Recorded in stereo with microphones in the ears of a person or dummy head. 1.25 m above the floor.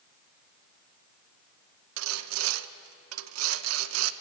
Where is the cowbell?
No cowbell in this recording.